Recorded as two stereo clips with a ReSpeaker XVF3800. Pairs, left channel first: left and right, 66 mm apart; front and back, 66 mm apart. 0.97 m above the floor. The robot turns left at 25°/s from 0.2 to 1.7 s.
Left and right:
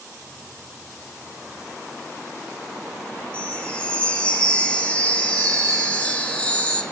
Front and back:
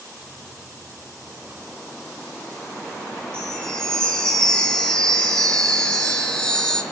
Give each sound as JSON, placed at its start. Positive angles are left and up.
{"t": 3.3, "sound": "a chime", "azimuth_deg": 55, "distance_m": 0.9}